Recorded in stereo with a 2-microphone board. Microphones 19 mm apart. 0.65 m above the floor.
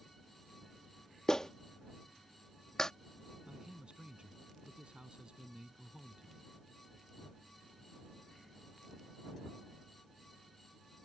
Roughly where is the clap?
Left.